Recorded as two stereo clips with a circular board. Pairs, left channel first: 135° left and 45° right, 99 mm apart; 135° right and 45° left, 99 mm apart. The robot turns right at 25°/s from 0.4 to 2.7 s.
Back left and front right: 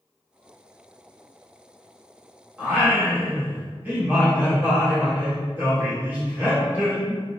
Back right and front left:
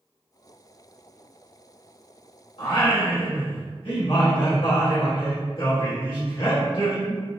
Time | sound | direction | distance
2.6 | singing | 115° right | 1.9 m